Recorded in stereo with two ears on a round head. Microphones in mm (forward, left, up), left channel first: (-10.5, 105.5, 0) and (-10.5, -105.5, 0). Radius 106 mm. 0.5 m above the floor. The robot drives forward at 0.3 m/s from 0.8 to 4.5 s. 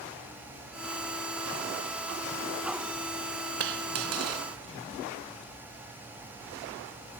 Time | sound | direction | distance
3.6 | a dropped coin | 55° right (ahead or behind) | ?